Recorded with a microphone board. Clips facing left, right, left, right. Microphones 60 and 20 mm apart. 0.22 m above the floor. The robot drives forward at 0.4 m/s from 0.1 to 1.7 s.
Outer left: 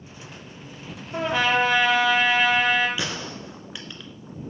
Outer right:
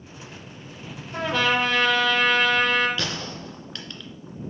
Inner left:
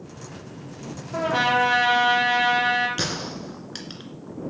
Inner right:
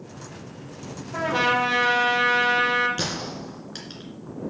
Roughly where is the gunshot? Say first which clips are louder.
Even, inner left 1 dB; centre.